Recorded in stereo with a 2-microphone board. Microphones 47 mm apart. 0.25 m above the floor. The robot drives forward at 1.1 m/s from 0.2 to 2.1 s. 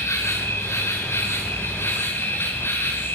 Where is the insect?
75° left (ahead or behind), 6.5 m; by 3.1 s 60° left (ahead or behind), 7 m.